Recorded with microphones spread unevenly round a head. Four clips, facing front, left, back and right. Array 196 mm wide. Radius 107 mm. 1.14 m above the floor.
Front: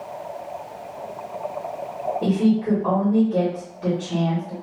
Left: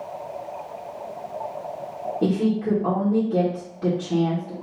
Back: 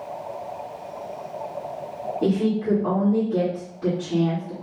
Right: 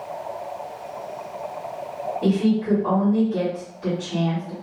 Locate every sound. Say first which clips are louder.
2.2 s a woman speaking: right 1 dB, front 2 dB; 80° left, 1.8 m